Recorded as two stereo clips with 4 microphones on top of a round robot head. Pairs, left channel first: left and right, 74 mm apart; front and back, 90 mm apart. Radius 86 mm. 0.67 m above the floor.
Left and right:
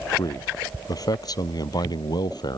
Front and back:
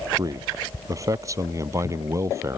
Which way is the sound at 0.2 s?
130° left.